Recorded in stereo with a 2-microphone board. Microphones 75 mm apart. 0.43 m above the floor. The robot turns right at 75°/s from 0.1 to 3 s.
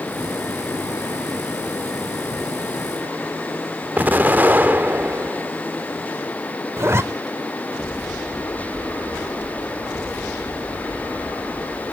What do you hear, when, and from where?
4.0 s an explosion: 25° right (ahead or behind), 0.9 m
6.8 s a zipper: 35° right (ahead or behind), 0.5 m